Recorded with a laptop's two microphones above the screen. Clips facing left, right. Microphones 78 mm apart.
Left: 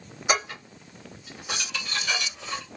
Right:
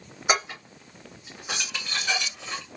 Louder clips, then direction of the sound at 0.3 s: Right 1 dB; 20° right (ahead or behind).